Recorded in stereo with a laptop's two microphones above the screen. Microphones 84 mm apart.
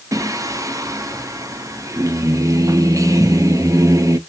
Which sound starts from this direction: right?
Singing, at 0.1 s.